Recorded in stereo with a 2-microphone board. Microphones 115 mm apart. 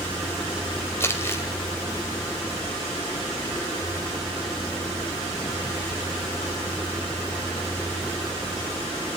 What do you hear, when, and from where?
1.0 s crumpling: 20° left (ahead or behind), 2 m